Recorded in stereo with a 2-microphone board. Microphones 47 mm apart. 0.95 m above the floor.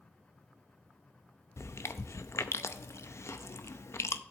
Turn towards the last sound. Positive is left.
turn(degrees=80)